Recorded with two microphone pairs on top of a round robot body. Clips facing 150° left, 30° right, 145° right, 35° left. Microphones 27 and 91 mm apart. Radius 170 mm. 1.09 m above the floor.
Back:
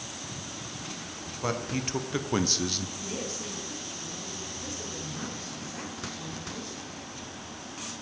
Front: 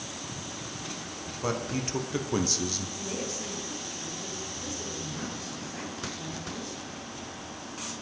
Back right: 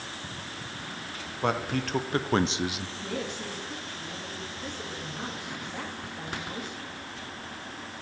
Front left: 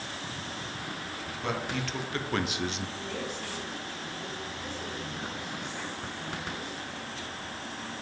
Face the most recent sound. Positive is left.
turn(degrees=-140)